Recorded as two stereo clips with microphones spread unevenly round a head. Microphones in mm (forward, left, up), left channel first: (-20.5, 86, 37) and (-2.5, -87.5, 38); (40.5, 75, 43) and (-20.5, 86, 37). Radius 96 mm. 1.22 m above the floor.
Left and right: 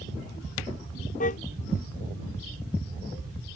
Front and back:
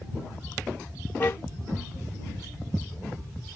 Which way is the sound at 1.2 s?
45° left.